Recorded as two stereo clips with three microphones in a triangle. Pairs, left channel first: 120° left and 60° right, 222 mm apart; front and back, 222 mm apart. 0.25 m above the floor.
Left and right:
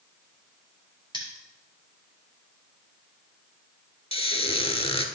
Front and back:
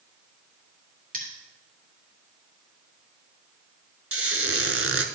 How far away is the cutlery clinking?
About 2.5 m.